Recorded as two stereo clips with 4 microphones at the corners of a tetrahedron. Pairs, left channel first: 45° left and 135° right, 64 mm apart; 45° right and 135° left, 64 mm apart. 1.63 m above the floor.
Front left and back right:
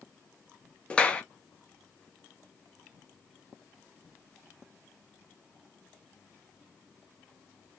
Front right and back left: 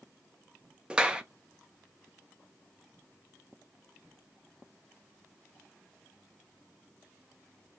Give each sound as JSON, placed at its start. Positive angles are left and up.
{"t": 0.9, "sound": "a clap", "azimuth_deg": 80, "distance_m": 0.6}